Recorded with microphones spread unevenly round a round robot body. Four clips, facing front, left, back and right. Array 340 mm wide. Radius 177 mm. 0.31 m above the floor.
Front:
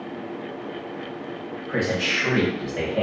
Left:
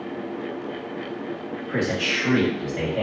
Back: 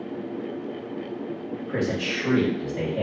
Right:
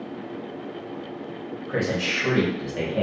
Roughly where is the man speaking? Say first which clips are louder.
Even, front 2 dB; behind right.